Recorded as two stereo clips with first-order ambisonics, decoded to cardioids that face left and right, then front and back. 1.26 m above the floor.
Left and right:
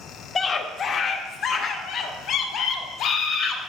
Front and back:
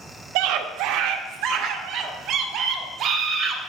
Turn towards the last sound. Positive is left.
turn(degrees=130)